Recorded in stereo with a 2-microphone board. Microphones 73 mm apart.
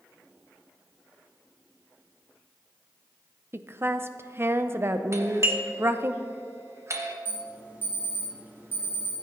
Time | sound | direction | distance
3.5 | a woman speaking | 35° right (ahead or behind) | 0.5 m
5.1 | a doorbell | 40° right (ahead or behind) | 1.0 m
7.2 | an alarm | 25° right (ahead or behind) | 2.5 m